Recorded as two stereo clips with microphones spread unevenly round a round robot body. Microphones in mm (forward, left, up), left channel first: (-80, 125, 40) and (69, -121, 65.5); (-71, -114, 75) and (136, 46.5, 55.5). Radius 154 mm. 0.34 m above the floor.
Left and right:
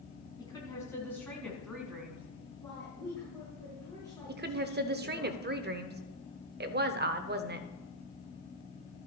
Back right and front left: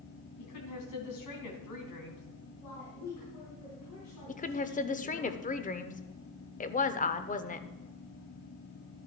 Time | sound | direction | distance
0.4 | a woman speaking | 165° right | 3.5 m
2.6 | a woman speaking | 160° right | 5.5 m
4.3 | a woman speaking | 95° right | 1.0 m